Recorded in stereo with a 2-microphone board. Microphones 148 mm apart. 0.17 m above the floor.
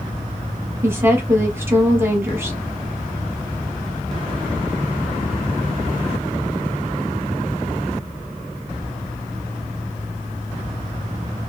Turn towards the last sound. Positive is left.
turn(degrees=-15)  # may be behind; listen again after turning